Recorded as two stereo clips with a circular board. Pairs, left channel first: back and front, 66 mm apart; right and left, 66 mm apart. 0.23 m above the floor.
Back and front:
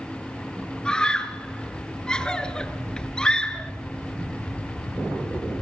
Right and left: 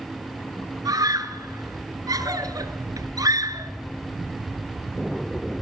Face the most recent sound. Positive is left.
turn(degrees=100)